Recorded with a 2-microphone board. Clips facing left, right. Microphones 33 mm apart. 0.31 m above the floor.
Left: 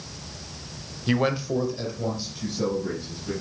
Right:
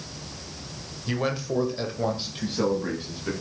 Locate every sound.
1.1 s a man speaking: 30° left (ahead or behind), 1.0 m; by 3.3 s 60° right (ahead or behind), 2.5 m